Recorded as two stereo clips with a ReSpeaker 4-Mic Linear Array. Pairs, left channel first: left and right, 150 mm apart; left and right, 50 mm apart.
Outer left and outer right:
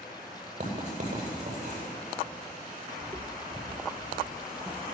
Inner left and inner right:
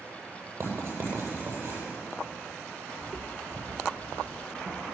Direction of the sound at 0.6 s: 50° right (ahead or behind).